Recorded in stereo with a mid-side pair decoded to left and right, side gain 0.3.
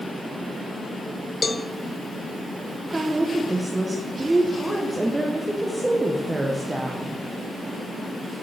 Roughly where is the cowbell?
Ahead left.